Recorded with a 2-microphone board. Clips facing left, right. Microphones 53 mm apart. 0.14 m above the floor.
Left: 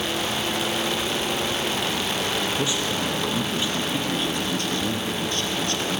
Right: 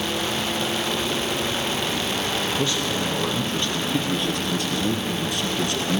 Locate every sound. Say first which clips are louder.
2.6 s a man speaking: right 1 dB; 15° left (ahead or behind), 3.5 m; by 6.0 s 20° right (ahead or behind), 2.5 m